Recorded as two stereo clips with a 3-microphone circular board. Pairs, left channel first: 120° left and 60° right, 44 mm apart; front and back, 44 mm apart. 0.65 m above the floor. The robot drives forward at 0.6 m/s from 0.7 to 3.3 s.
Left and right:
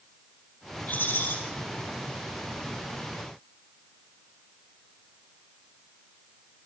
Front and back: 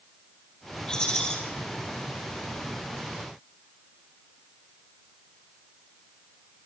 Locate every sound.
0.9 s a rattle: 70° left, 6 m